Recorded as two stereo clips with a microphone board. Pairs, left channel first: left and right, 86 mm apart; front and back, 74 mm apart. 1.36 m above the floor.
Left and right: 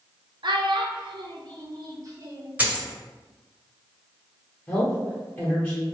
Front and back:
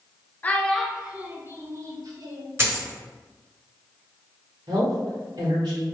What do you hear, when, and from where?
0.4 s a child speaking: 65° right, 0.6 m; by 2.5 s 145° right, 1.1 m
2.6 s a dropped coin: 150° right, 1.3 m
4.7 s a woman speaking: 155° left, 1.2 m